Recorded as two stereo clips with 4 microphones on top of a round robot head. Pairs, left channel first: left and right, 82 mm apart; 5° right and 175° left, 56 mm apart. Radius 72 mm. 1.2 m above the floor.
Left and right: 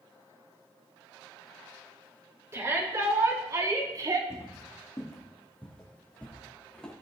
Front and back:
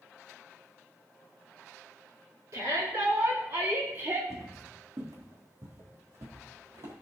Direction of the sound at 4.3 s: 145° left.